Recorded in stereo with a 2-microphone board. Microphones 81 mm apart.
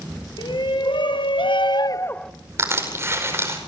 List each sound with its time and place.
0.4 s a shout: 65° left (ahead or behind), 2 m; by 2.3 s 5° left (ahead or behind), 0.7 m
2.6 s crushing: 30° right (ahead or behind), 4.5 m